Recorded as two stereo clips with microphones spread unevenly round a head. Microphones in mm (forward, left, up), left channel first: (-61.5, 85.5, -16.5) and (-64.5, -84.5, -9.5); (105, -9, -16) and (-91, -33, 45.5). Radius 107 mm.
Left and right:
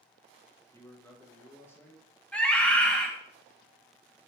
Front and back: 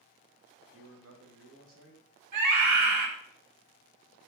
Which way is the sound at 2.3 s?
175° left.